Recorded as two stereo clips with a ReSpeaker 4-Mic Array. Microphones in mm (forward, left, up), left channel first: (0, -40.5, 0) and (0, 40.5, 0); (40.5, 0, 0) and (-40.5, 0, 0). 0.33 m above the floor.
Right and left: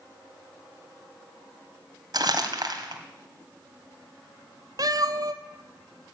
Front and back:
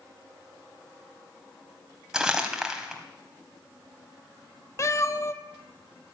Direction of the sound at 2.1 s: 100° left.